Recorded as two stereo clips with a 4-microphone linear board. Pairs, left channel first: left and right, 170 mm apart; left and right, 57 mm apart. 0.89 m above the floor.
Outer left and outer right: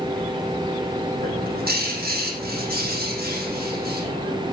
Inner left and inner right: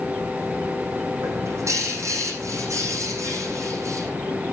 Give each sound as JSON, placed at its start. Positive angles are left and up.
{"t": 1.2, "sound": "a bird", "side_deg": -65, "distance_m": 7.5}